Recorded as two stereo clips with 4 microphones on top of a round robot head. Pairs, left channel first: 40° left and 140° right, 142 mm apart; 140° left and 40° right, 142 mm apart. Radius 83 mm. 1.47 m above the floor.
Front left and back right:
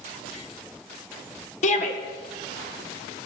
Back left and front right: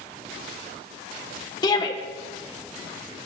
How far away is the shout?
About 1.6 m.